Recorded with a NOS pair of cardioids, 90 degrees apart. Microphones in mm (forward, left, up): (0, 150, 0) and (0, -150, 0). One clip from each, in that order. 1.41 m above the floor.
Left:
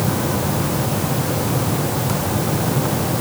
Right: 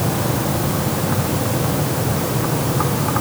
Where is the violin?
No violin in this recording.